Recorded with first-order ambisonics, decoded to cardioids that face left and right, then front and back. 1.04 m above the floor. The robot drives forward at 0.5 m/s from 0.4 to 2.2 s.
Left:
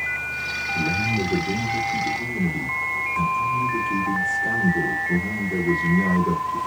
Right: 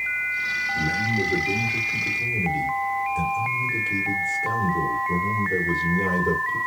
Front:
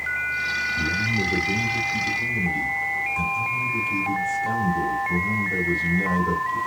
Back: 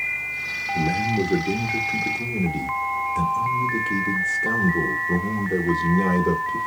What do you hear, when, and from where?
0.8 s a man speaking: 155° left, 0.7 m; by 6.6 s 170° left, 1.4 m